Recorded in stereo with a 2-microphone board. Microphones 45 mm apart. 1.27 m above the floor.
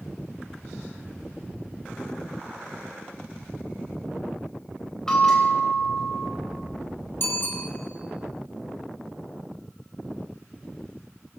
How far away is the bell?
About 4.5 m.